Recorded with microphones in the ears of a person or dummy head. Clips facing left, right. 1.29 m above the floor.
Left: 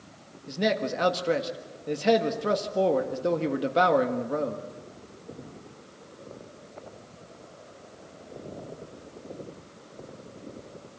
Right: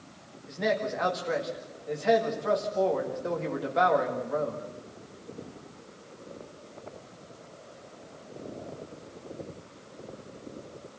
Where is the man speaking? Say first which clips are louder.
Left 2 dB; 40° left (ahead or behind), 1.9 m.